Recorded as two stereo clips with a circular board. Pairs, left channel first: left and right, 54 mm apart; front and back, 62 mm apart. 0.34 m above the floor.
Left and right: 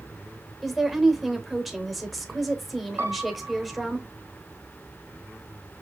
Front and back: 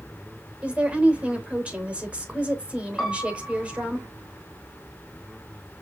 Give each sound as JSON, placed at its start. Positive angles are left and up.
{"t": 0.6, "sound": "a woman speaking", "azimuth_deg": -170, "distance_m": 0.8}
{"t": 3.0, "sound": "a piano", "azimuth_deg": -75, "distance_m": 1.1}